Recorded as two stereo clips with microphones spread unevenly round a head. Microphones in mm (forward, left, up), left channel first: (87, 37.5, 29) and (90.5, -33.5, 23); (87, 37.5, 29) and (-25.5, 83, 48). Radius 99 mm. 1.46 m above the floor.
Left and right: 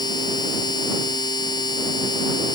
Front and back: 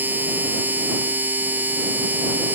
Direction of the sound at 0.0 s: 85° left.